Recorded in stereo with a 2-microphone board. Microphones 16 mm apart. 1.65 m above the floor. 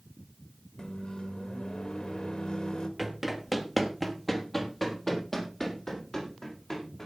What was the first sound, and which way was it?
A microwave, 65° left (ahead or behind).